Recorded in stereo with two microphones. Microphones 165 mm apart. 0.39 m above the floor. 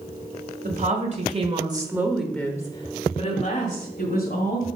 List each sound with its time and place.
0.6 s a woman speaking: 55° right (ahead or behind), 2 m; by 4.7 s 60° left (ahead or behind), 3 m